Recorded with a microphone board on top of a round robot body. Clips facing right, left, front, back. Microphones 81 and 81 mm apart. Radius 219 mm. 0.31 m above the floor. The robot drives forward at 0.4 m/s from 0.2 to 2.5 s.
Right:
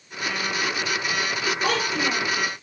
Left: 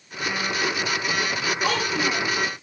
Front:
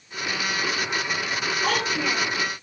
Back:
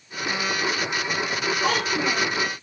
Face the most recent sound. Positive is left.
turn(degrees=-125)